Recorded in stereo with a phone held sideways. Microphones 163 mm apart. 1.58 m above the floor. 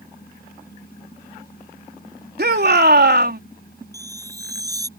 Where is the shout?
70° right (ahead or behind).